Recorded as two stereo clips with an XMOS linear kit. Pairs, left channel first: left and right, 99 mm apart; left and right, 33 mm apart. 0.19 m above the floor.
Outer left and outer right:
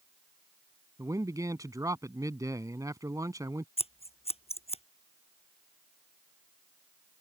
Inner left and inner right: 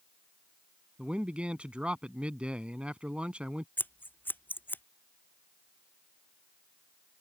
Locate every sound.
1.0 s a man speaking: 35° right (ahead or behind)
3.8 s scissors: 85° left